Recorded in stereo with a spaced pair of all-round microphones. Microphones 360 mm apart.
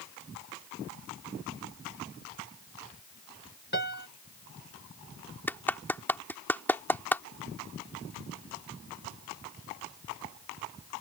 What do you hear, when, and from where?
3.7 s a piano: 30° left (ahead or behind)
5.5 s a clap: 5° left (ahead or behind)